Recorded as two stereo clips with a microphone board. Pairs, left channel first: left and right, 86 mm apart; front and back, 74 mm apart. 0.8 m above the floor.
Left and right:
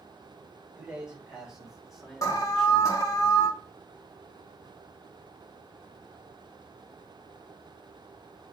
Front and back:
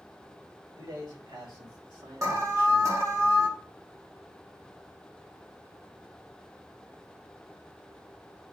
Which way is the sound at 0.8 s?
170° right.